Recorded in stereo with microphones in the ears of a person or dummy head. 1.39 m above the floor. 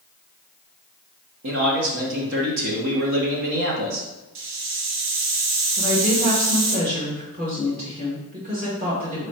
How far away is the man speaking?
About 1.1 m.